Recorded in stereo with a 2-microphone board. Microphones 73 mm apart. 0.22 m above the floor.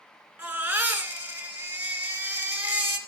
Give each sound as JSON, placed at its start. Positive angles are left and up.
{"t": 0.4, "sound": "a baby crying", "side_deg": -25, "distance_m": 2.5}